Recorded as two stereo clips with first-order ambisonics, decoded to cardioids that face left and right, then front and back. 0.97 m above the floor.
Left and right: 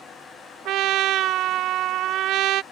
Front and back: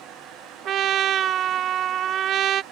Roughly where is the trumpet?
Behind right.